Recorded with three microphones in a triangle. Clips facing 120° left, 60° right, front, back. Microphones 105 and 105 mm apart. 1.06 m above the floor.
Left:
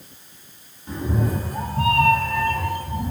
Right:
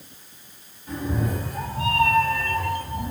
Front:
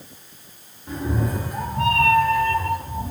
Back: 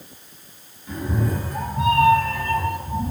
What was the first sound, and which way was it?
A cat meowing, 60° left.